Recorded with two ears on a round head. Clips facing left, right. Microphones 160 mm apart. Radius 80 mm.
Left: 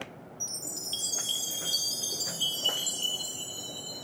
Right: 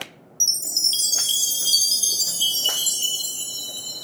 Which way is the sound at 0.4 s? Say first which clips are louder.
Even; 55° right (ahead or behind).